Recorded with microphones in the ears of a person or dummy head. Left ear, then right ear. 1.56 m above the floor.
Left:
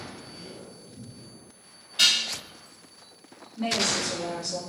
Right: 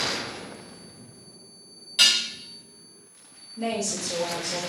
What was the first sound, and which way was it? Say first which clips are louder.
Dishes clattering: right 2 dB; 40° right (ahead or behind).